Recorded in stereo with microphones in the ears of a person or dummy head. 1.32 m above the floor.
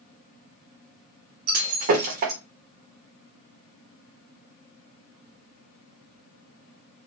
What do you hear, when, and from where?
1.5 s breaking glass: 45° right (ahead or behind), 0.9 m